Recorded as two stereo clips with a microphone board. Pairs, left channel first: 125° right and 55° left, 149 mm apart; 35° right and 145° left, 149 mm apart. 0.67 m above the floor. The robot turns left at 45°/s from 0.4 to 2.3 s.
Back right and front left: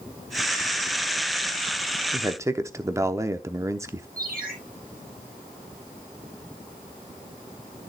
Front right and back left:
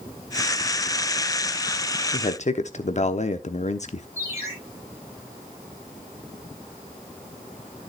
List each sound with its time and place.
2.1 s a man speaking: 5° right, 0.9 m; by 4.1 s 10° right, 0.9 m
4.2 s a ringtone: 75° left, 8.5 m